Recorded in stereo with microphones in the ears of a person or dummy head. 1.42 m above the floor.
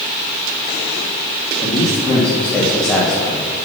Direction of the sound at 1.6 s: 10° left (ahead or behind).